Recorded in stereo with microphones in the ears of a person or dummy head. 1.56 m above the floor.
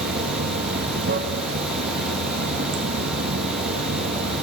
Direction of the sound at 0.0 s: 55° right (ahead or behind).